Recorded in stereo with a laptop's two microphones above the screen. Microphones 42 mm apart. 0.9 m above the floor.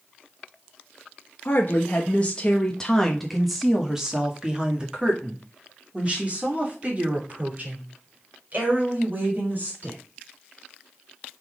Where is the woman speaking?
45° left (ahead or behind), 1.3 m; by 10.0 s 40° right (ahead or behind), 4.5 m.